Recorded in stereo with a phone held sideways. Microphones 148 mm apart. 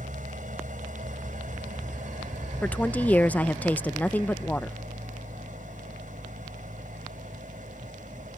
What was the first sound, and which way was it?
An engine running, 65° right (ahead or behind).